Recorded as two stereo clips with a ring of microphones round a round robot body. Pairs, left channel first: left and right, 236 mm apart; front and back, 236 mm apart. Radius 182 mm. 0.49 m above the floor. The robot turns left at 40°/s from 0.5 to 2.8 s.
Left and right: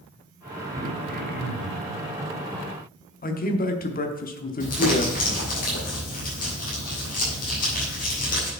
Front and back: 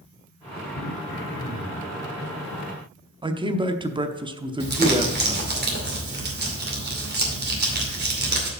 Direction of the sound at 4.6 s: 145° left.